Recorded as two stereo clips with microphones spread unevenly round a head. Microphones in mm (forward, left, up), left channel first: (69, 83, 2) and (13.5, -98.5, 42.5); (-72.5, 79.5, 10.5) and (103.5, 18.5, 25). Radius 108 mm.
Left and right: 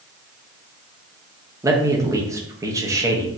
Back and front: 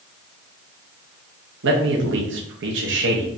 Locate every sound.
1.6 s a man speaking: 25° right, 1.1 m